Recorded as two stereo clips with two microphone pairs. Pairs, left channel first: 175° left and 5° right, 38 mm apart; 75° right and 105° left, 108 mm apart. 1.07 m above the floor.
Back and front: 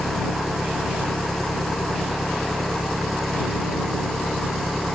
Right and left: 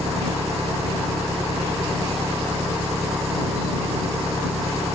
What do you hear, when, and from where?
0.0 s an engine running: 90° left